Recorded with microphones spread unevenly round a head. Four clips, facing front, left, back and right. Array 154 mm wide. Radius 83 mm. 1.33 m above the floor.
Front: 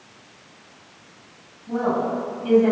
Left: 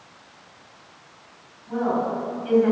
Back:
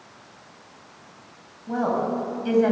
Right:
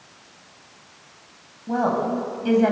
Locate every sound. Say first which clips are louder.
1.7 s a woman speaking: right 2 dB, front 1 dB; 110° right, 10 m; by 2.7 s 115° right, 9.5 m